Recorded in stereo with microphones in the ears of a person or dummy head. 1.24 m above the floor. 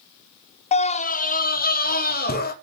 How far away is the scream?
About 0.5 m.